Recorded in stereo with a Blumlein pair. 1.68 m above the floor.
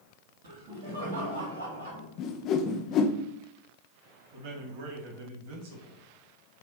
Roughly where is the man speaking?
Ahead right.